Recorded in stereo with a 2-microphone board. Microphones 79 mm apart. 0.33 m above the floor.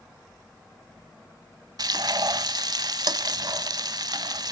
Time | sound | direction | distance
1.8 | frying | 60° right (ahead or behind) | 0.7 m